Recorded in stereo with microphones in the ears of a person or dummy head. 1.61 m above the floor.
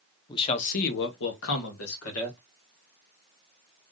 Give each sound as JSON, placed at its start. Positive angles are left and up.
{"t": 0.3, "sound": "a man speaking", "side_deg": 25, "distance_m": 0.8}